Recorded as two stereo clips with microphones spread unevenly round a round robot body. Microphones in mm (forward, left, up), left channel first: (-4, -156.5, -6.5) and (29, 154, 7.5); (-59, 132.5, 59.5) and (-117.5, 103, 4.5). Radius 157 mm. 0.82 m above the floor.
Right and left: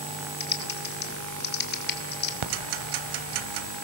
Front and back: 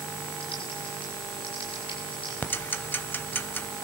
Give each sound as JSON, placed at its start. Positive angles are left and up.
{"t": 0.4, "sound": "typing on a keyboard", "azimuth_deg": -35, "distance_m": 2.0}
{"t": 2.4, "sound": "ticking", "azimuth_deg": 80, "distance_m": 1.9}